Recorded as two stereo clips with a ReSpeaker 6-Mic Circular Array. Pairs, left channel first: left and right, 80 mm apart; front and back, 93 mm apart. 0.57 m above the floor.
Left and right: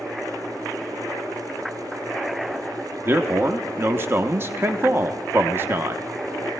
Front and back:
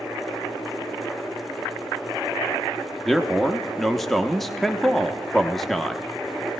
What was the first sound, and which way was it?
A man speaking, 85° right.